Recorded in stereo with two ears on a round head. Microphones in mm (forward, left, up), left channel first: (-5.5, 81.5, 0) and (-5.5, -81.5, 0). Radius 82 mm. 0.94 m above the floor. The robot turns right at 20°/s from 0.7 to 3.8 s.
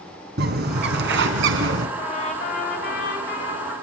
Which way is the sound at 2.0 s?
30° left.